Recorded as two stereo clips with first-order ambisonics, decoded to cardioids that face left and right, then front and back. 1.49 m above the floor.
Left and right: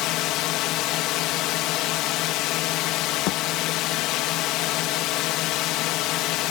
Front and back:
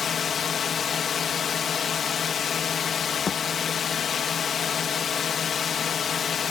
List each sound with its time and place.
0.0 s a drone: 65° left
3.3 s a thud: 70° left